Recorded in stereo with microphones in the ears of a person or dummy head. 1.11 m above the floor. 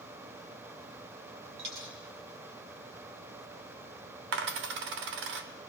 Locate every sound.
1.6 s a dropped coin: 65° right (ahead or behind), 2.5 m
4.3 s a dropped coin: 60° right (ahead or behind), 0.9 m